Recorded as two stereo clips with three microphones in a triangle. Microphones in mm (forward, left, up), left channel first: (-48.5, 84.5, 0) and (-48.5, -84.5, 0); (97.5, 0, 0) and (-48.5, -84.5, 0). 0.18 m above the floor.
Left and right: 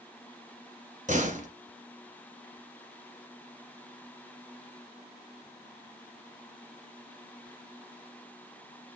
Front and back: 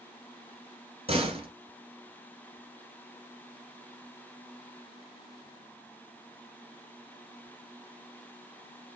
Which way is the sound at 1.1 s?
110° right.